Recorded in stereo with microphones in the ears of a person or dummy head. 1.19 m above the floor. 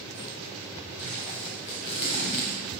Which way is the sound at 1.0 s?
30° left (ahead or behind).